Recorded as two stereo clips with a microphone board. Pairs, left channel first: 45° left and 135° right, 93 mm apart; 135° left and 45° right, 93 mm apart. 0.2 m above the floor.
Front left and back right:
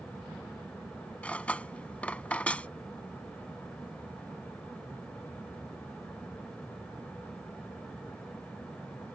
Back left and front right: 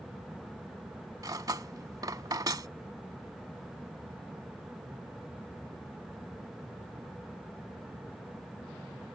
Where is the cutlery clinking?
25° right.